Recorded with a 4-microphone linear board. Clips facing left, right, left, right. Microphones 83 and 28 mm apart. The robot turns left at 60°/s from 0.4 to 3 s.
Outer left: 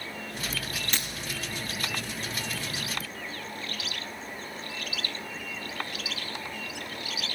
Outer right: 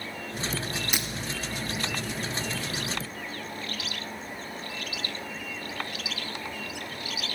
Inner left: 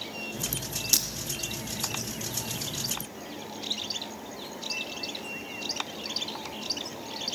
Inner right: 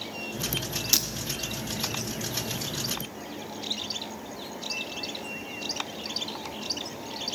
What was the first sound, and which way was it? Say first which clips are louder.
Breaking glass: even, inner right 1 dB; 15° right (ahead or behind).